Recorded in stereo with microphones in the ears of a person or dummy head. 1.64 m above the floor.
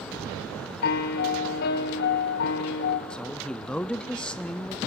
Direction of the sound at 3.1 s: 5° left (ahead or behind).